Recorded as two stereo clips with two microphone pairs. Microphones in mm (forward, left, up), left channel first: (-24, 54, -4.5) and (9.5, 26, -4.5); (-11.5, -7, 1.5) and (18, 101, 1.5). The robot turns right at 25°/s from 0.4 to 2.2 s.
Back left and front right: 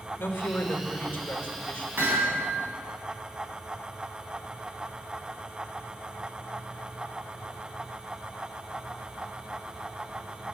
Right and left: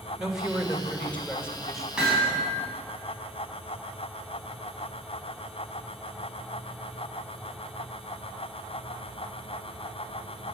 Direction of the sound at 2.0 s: 10° right.